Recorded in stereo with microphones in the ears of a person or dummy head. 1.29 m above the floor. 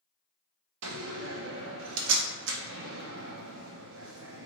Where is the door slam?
70° right (ahead or behind), 0.7 m.